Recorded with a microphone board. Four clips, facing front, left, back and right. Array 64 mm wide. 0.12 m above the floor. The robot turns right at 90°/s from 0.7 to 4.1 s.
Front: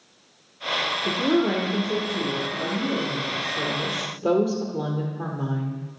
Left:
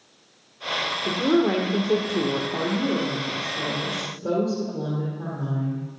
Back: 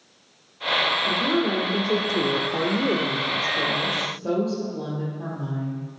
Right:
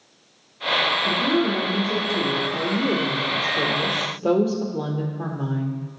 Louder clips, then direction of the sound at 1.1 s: Left 5 dB, front 1 dB; 25° left.